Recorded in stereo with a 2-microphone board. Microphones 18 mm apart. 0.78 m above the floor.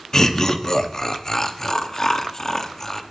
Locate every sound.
0.1 s laughter: 35° left (ahead or behind), 1.1 m